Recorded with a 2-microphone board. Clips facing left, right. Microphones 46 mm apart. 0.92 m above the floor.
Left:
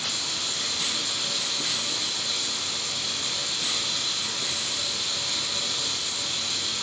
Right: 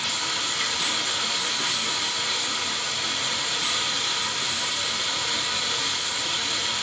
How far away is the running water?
About 1.8 m.